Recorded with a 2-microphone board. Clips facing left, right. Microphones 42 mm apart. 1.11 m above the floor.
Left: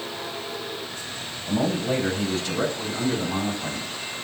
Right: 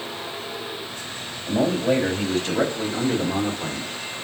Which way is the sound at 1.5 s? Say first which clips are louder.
Right 3 dB; 55° right (ahead or behind).